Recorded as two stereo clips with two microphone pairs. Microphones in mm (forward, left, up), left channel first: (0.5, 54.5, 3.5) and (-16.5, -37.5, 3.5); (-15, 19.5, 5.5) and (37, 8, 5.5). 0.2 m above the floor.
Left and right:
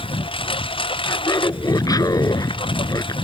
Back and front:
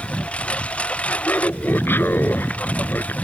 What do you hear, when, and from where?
0.0 s a lawn mower: 100° left; by 3.2 s 105° left
1.0 s laughter: 125° left